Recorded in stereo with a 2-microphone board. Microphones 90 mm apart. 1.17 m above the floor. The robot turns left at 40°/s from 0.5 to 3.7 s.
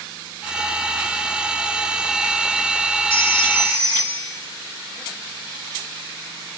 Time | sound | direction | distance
3.1 | a phone ringing | 75° left (ahead or behind) | 6 m